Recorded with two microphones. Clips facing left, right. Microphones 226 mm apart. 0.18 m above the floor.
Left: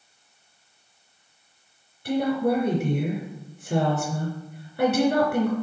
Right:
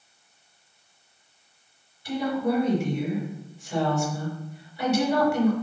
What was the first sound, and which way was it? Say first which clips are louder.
A woman speaking: left 3 dB; 60° left (ahead or behind).